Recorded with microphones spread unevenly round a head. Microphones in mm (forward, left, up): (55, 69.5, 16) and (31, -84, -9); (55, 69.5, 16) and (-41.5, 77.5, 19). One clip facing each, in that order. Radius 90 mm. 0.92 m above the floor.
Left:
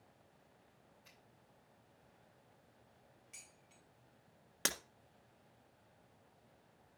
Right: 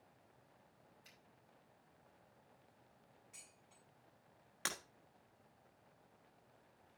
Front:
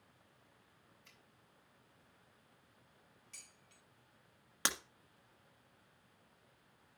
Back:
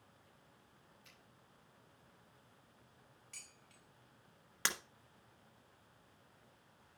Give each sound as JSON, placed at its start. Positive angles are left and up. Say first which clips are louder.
{"t": 1.0, "sound": "a finger snap", "louder": "left 1 dB, back 2 dB", "azimuth_deg": -155, "distance_m": 5.0}
{"t": 3.3, "sound": "dishes clattering", "louder": "left 1 dB, back 2 dB", "azimuth_deg": 150, "distance_m": 3.5}
{"t": 4.7, "sound": "breaking glass", "louder": "left 5 dB, front 1 dB", "azimuth_deg": 65, "distance_m": 1.4}